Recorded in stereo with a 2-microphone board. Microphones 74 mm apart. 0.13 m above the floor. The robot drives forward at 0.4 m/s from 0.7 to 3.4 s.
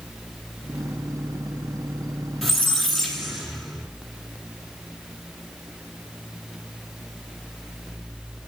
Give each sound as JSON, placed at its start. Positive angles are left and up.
{"t": 2.4, "sound": "a squeak", "side_deg": 0, "distance_m": 1.1}